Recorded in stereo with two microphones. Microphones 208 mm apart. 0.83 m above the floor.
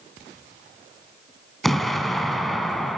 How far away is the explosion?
About 1.8 m.